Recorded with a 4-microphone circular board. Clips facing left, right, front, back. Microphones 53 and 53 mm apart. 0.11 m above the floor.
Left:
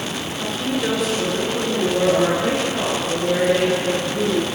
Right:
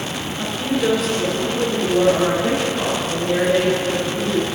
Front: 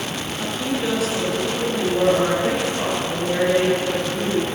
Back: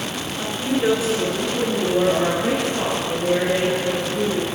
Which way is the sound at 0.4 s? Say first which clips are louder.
Right 3 dB, back 3 dB; 135° right.